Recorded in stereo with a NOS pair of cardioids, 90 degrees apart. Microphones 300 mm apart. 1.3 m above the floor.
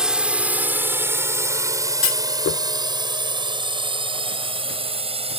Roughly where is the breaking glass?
I don't hear breaking glass.